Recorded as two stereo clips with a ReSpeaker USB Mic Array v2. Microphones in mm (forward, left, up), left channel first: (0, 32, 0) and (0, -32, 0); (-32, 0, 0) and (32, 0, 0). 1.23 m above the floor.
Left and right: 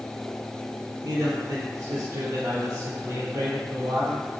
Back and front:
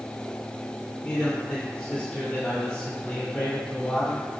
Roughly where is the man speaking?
Right.